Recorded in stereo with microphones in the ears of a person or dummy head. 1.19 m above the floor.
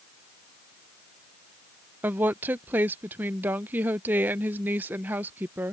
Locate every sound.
2.0 s a woman speaking: 10° right (ahead or behind)